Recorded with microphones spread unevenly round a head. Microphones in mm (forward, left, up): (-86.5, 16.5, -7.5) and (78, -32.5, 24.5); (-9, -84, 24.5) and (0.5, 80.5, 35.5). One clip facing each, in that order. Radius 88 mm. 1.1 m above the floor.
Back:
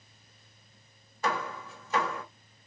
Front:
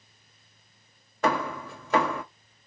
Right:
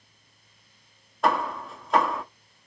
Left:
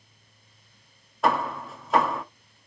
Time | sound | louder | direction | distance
1.2 | hammering | front 6 dB, even | straight ahead | 0.8 m